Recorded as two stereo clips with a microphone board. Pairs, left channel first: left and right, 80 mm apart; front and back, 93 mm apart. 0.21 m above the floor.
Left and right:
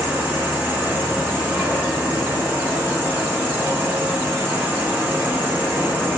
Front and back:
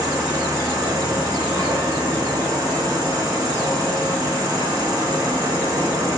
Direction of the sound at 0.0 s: 150° right.